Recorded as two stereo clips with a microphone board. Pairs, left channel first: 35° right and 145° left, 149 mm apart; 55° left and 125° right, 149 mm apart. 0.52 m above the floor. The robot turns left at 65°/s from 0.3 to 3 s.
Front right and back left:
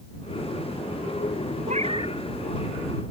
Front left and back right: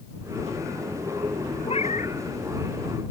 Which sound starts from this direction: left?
A cat meowing, at 1.7 s.